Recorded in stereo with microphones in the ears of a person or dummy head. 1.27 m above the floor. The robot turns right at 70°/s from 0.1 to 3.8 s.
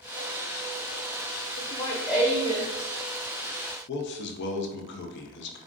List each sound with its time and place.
1.6 s laughter: 140° left, 0.5 m; by 2.7 s 140° right, 0.5 m
3.9 s a man speaking: 60° left (ahead or behind), 0.6 m